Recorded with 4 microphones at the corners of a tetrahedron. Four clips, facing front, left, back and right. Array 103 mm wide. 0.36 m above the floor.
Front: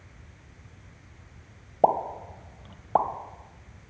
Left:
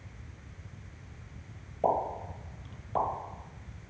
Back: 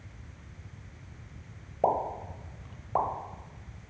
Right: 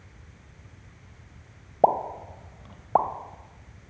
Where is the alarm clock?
No alarm clock in this recording.